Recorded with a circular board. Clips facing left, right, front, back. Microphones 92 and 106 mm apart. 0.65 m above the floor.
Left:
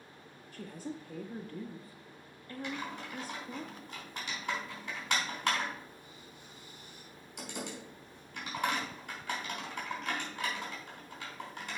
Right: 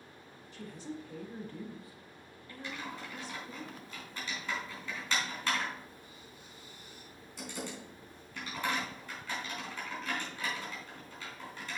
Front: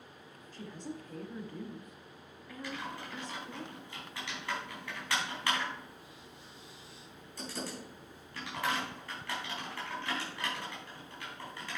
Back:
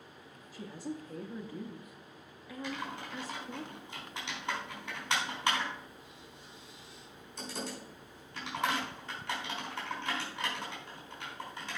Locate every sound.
0.5 s a woman speaking: 100° left, 0.8 m
2.6 s typing on a keyboard: 110° left, 4 m